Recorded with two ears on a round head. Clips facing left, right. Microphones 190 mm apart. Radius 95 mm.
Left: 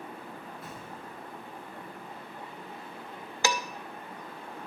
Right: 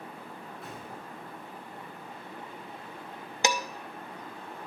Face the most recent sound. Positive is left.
turn(degrees=-20)  # may be behind; listen again after turning